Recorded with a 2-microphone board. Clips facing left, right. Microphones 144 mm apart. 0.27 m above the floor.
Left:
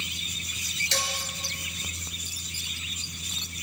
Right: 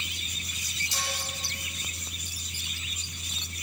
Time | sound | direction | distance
0.9 | dishes clattering | 75° left (ahead or behind) | 3 m